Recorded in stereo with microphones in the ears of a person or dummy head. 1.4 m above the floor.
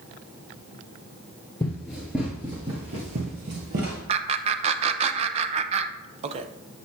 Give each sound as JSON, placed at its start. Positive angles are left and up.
{"t": 1.6, "sound": "running footsteps", "side_deg": 15, "distance_m": 1.4}
{"t": 4.1, "sound": "laughter", "side_deg": -35, "distance_m": 0.6}